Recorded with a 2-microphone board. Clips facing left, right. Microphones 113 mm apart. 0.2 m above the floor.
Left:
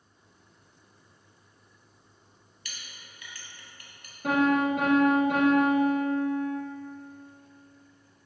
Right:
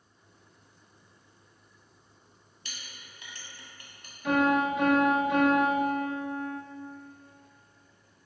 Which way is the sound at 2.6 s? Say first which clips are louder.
Even; 30° right (ahead or behind).